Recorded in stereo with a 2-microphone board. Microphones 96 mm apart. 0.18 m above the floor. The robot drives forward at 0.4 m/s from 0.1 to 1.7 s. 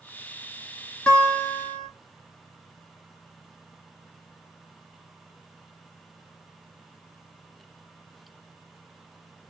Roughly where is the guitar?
Centre.